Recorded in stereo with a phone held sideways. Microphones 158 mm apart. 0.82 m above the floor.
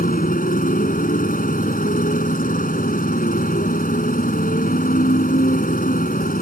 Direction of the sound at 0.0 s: 65° left (ahead or behind).